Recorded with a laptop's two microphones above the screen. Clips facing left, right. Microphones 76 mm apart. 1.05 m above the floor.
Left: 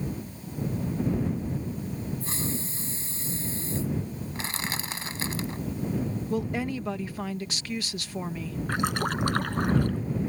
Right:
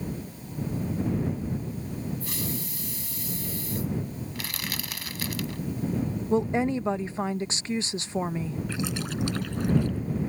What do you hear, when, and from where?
2.2 s a hiss: 30° left (ahead or behind)
4.3 s crushing: 30° left (ahead or behind)
6.3 s a woman speaking: 25° right (ahead or behind)
8.7 s a splash: 50° left (ahead or behind)